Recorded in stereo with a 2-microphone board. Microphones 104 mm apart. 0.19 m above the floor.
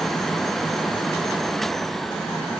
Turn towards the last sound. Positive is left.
No sound to turn to.